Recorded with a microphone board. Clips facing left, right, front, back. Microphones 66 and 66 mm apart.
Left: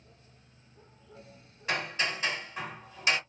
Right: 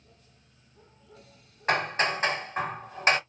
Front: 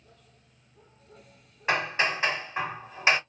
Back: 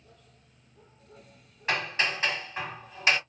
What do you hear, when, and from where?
1.7 s hammering: 60° right, 0.9 m